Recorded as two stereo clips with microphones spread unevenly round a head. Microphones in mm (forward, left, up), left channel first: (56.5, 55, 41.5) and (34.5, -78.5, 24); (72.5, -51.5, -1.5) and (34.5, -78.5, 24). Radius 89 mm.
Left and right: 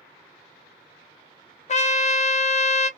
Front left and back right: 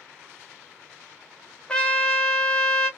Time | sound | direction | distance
1.7 | a trumpet | 60° left | 0.6 m